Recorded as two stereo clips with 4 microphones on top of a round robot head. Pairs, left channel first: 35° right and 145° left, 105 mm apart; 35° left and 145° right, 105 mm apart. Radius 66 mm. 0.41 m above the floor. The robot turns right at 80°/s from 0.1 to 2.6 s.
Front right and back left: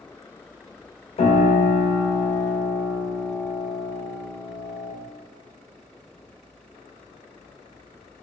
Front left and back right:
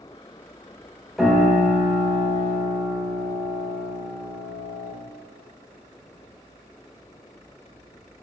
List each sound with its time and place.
1.2 s a piano: 60° right, 0.8 m; by 5.0 s 55° left, 0.8 m